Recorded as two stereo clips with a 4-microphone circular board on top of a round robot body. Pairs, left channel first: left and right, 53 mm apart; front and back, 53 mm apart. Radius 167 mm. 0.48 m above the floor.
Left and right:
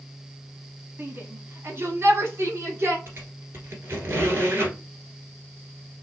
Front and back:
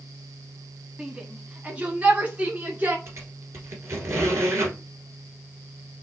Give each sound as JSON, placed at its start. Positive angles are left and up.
{"t": 1.0, "sound": "a shout", "azimuth_deg": -110, "distance_m": 1.7}
{"t": 3.1, "sound": "a squeak", "azimuth_deg": -140, "distance_m": 1.5}